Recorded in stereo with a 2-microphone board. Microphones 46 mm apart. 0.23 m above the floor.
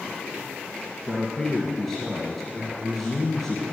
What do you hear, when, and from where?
1.1 s a man speaking: 15° left (ahead or behind), 1.9 m